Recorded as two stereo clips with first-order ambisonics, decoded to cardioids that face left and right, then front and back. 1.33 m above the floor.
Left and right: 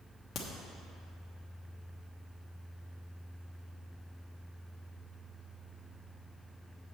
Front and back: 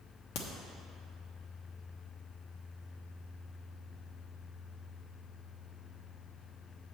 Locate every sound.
0.3 s a crack: 30° left, 1.1 m